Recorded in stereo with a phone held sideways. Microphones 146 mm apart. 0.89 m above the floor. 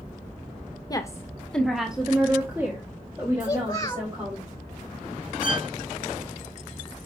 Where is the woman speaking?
25° left (ahead or behind), 1.0 m; by 4.4 s 25° right (ahead or behind), 3.5 m.